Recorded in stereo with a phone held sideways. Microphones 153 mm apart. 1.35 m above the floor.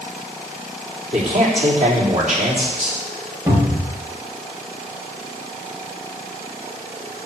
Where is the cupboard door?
20° right (ahead or behind), 3.5 m.